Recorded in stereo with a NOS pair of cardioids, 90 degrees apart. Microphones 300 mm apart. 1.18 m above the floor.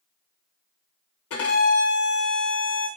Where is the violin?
50° left, 1.2 m.